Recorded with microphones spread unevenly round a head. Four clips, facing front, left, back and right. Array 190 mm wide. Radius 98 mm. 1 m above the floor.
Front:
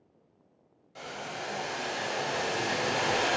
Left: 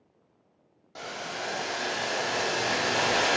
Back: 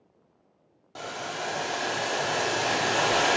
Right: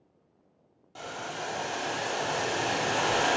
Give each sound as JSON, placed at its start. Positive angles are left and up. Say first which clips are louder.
{"t": 0.9, "sound": "boiling", "louder": "left 1 dB, back 4 dB", "azimuth_deg": 160, "distance_m": 1.5}